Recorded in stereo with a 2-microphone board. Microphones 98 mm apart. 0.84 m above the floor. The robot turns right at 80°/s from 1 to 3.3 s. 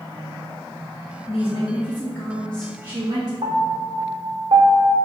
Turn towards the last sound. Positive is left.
turn(degrees=-65)  # may be behind; listen again after turning